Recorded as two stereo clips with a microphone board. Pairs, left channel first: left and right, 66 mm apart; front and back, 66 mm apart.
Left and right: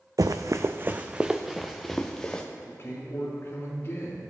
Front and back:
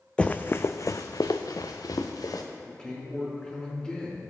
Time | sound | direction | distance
0.2 | running footsteps | 75° right | 0.6 m
2.6 | a man speaking | 70° left | 2.5 m